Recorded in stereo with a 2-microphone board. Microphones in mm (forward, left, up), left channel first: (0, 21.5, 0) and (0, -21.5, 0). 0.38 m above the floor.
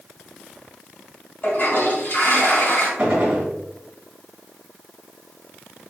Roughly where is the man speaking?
I don't hear a man speaking.